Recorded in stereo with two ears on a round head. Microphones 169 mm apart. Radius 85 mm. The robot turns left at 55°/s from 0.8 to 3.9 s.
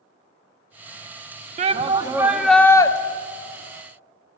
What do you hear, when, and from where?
1.6 s a shout: 135° right, 0.9 m; by 2.9 s 155° left, 0.9 m